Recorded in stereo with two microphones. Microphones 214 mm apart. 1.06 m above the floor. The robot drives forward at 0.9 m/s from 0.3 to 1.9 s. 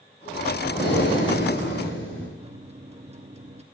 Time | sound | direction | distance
0.7 | breathing | 55° left (ahead or behind) | 5.5 m
2.4 | a microwave | 30° right (ahead or behind) | 1.1 m